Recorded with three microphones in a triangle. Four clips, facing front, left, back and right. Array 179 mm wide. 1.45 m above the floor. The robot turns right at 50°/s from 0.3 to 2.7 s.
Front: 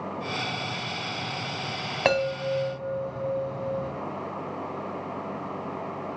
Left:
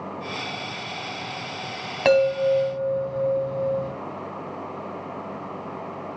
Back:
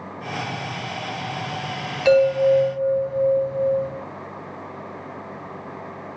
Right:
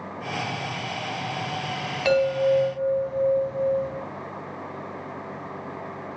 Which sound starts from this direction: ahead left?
A chime, at 2.0 s.